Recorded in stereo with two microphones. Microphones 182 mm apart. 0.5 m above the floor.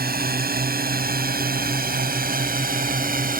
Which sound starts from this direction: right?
A drone, at 0.0 s.